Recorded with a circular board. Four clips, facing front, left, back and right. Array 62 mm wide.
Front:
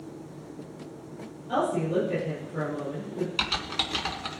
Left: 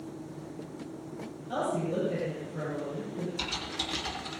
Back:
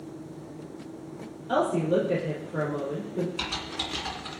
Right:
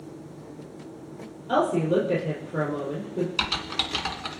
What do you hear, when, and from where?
1.5 s a woman speaking: 120° right, 6 m
3.4 s typing on a keyboard: 65° right, 2.5 m